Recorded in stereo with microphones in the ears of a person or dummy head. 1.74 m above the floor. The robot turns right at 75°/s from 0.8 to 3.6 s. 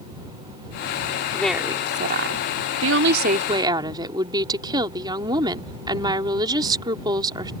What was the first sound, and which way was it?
A woman speaking, 165° left.